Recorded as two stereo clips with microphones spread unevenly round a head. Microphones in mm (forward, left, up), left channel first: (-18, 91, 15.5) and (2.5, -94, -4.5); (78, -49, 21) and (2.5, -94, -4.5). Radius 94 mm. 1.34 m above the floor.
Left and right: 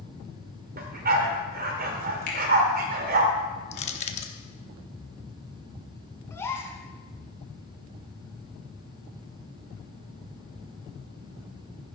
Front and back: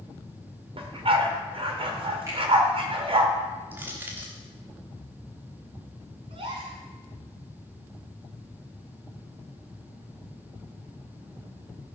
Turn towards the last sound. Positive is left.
turn(degrees=165)